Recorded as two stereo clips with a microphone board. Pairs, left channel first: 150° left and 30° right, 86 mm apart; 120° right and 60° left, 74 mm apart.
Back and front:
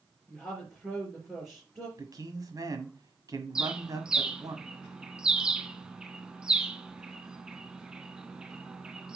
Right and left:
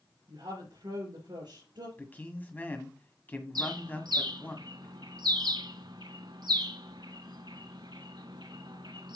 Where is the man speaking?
60° right, 1.7 m.